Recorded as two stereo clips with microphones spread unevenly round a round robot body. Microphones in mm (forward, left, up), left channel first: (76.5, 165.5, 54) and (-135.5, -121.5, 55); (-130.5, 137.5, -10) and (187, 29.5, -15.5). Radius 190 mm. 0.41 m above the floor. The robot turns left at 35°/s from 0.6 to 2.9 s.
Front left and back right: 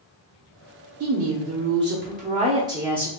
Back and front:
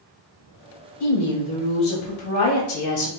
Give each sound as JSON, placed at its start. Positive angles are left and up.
{"t": 1.0, "sound": "a woman speaking", "azimuth_deg": -140, "distance_m": 0.9}